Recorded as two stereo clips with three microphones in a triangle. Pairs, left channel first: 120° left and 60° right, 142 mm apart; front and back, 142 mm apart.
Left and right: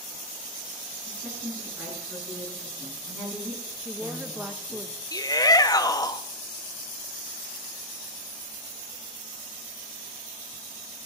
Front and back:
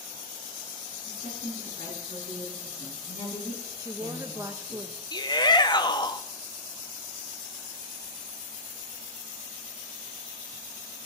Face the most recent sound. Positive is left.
turn(degrees=55)